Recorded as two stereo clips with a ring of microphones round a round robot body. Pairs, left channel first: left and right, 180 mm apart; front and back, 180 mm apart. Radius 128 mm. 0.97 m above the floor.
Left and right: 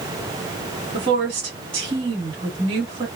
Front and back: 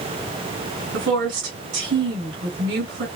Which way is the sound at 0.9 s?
160° right.